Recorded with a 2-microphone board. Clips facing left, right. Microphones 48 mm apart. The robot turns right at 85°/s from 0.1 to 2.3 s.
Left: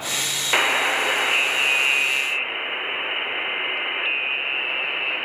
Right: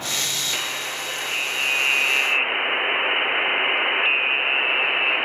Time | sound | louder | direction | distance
0.5 | a buzzer | left 8 dB | 65° left | 0.5 m